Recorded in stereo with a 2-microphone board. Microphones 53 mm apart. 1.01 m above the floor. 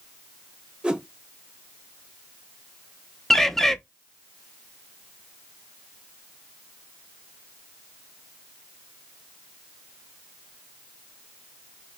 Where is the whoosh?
20° right (ahead or behind), 0.8 m.